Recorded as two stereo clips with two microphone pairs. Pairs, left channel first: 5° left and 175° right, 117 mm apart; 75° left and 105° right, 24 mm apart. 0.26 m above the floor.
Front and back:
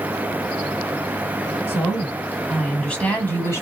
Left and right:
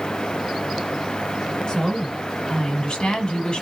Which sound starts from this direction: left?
A woman speaking, at 1.7 s.